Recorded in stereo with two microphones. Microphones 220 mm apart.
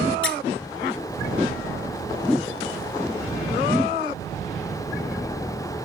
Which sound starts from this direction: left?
A squeak, at 0.2 s.